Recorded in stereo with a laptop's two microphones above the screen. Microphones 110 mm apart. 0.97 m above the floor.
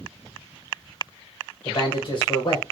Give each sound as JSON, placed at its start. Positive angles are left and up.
{"t": 1.6, "sound": "a man speaking", "side_deg": 45, "distance_m": 1.2}